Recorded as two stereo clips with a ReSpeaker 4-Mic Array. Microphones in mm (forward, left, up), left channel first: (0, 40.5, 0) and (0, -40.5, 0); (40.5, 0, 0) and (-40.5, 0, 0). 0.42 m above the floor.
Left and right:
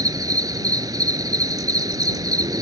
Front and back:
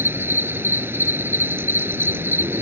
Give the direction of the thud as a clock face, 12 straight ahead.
No thud in this recording.